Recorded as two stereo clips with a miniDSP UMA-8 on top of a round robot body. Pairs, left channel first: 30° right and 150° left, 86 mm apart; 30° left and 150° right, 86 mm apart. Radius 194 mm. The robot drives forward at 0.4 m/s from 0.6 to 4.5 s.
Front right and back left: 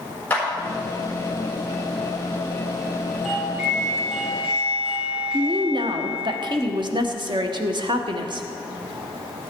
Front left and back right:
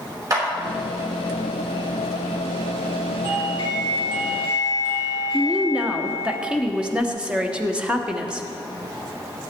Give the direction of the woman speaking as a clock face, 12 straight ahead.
8 o'clock.